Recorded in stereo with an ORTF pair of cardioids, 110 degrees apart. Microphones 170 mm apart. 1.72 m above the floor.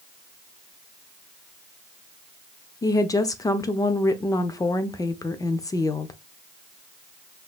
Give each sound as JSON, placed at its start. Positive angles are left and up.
{"t": 2.8, "sound": "a woman speaking", "azimuth_deg": 20, "distance_m": 0.7}